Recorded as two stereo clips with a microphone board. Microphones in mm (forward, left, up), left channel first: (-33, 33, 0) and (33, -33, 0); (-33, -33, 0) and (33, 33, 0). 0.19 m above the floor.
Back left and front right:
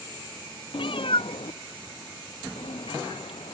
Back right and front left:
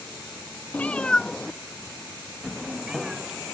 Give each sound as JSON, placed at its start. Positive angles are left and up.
{"t": 0.7, "sound": "a cat meowing", "azimuth_deg": 155}